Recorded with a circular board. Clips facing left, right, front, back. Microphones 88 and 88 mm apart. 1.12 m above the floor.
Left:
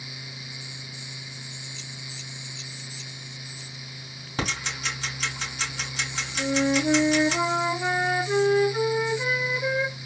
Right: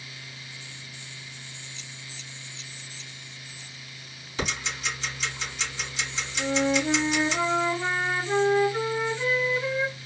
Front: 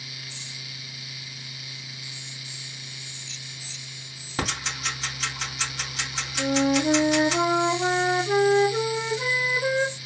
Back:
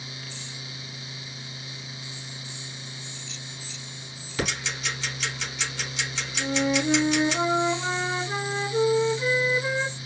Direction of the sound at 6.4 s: 10° left.